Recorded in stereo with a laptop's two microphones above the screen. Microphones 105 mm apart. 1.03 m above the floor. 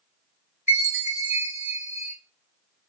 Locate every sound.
0.7 s a chime: 15° right (ahead or behind), 1.3 m